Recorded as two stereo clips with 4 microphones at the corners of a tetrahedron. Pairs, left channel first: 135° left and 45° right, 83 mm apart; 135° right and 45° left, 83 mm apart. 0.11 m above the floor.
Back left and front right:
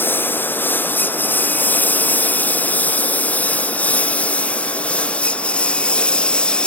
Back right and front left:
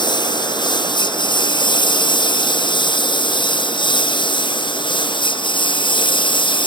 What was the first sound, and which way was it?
A lawn mower, 160° right.